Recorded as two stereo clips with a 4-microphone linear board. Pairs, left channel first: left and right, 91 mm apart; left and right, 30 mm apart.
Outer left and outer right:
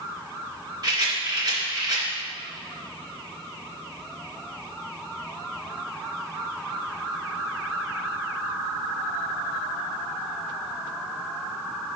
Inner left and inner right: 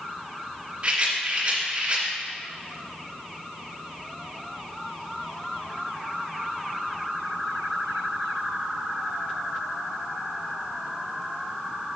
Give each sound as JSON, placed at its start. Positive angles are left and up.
{"t": 0.8, "sound": "a rattle", "side_deg": -40, "distance_m": 2.0}